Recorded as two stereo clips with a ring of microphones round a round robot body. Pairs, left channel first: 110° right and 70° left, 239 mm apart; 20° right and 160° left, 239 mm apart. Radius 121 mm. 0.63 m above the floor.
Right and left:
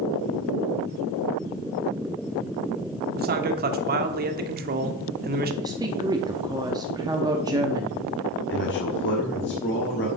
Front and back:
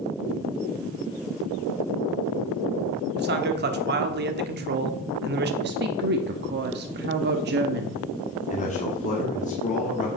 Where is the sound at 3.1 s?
115° left, 1.2 m.